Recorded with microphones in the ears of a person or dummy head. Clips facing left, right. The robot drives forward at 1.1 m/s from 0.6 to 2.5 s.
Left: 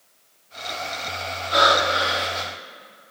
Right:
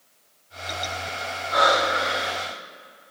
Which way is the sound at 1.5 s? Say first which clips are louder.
Left 1 dB; 40° left (ahead or behind).